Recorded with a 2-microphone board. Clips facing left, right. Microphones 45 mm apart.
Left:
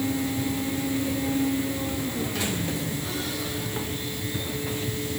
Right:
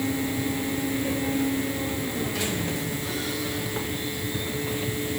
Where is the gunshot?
No gunshot in this recording.